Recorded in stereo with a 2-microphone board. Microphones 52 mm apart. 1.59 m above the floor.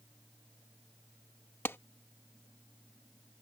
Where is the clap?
50° left (ahead or behind).